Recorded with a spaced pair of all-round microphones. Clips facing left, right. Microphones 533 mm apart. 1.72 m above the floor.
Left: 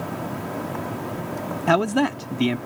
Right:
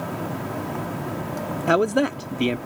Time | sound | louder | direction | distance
1.7 | a man speaking | right 1 dB | 20° left (ahead or behind) | ?